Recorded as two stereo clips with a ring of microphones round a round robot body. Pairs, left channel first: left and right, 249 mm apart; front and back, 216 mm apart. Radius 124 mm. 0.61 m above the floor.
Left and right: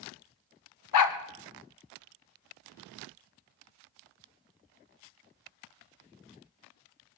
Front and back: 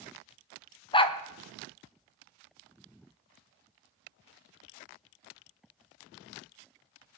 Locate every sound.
0.9 s a dog barking: 70° left, 1.4 m